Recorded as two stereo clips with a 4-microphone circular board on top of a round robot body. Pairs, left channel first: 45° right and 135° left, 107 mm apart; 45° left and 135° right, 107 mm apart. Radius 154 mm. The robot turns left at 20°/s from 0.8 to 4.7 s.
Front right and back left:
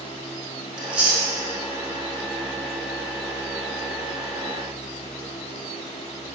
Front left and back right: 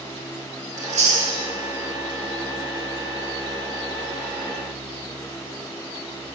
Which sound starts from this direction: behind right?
Chewing, at 0.8 s.